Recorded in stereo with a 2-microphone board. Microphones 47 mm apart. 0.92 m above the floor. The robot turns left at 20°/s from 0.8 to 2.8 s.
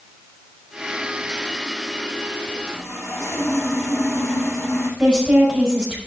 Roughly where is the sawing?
Left.